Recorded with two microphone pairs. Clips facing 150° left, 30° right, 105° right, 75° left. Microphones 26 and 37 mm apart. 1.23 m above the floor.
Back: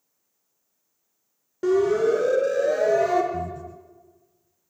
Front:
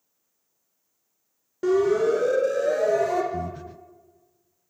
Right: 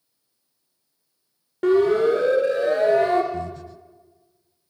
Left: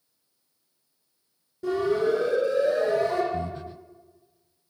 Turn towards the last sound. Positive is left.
turn(degrees=10)